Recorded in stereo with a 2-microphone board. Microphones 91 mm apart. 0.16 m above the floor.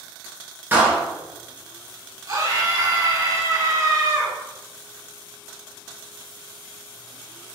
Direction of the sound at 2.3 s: 40° right (ahead or behind).